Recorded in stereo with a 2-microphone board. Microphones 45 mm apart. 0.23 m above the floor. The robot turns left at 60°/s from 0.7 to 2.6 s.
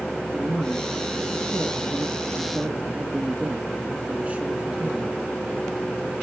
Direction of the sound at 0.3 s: 35° right.